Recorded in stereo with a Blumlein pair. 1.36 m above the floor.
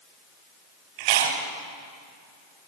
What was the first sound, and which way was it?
Chewing, 50° right.